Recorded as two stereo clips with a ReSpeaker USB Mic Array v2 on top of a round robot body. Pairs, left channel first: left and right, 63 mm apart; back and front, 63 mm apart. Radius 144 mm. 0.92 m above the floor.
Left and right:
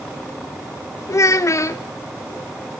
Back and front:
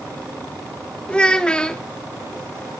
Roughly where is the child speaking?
Left.